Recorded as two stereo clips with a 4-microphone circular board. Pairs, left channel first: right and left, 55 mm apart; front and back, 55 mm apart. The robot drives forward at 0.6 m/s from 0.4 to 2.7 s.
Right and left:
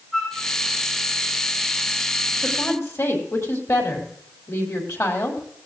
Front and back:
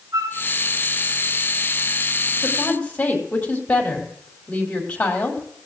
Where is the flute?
170° right, 9.5 m.